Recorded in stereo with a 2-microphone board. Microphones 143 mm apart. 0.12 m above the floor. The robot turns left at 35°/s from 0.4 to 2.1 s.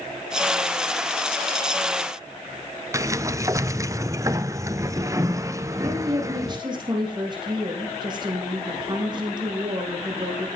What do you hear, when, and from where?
2.9 s a sliding door: 20° right (ahead or behind), 0.5 m
5.8 s a woman speaking: 30° right (ahead or behind), 6 m